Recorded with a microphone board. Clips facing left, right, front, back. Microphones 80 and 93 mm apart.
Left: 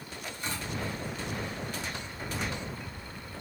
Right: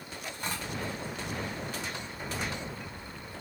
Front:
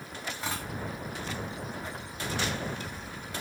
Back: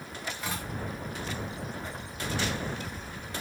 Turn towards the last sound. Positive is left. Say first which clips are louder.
# right 1 dB, front 2 dB
turn(degrees=-55)